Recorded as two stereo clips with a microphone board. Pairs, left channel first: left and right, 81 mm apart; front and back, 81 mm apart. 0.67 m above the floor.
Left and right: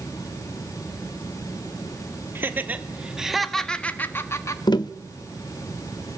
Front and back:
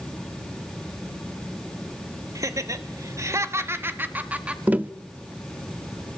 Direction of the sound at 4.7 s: 110° left.